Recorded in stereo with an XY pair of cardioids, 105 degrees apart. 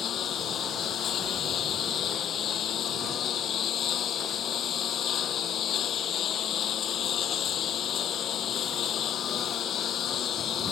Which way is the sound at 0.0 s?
60° left.